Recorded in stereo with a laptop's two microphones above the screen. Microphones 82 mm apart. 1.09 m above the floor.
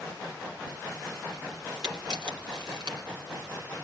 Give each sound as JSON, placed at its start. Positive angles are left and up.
{"t": 1.8, "sound": "a camera shutter", "side_deg": -65, "distance_m": 2.5}